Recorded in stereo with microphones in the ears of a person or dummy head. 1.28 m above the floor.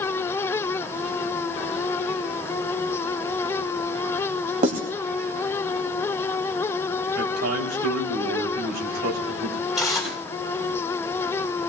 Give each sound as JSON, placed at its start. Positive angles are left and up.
{"t": 4.6, "sound": "writing", "side_deg": -45, "distance_m": 2.5}
{"t": 7.2, "sound": "a man speaking", "side_deg": -60, "distance_m": 3.5}
{"t": 9.8, "sound": "tearing paper", "side_deg": 0, "distance_m": 8.5}